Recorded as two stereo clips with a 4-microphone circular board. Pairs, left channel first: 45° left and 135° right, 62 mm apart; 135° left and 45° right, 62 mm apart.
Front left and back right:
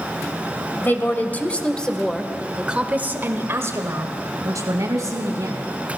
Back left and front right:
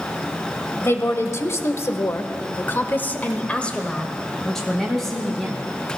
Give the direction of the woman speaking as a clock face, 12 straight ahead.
9 o'clock.